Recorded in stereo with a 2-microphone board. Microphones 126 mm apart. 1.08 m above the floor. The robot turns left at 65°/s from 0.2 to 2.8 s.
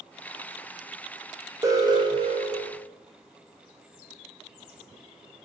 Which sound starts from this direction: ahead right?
An alarm, at 1.6 s.